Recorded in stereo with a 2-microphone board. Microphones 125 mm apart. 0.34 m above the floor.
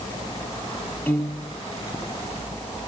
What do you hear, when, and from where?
1.1 s a piano: 15° left (ahead or behind), 1.7 m